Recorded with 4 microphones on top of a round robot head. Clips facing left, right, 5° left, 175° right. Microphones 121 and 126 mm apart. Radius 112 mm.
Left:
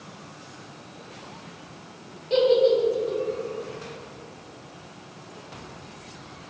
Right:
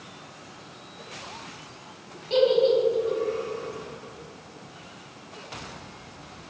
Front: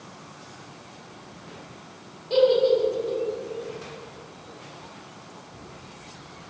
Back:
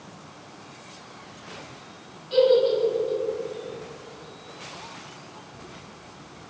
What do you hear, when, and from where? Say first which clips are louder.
2.3 s a giggle: left 1 dB, even; 25° right, 2.0 m